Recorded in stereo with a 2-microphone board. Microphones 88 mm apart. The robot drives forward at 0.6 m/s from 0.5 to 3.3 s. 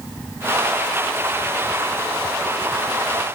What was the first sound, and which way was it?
Only background noise.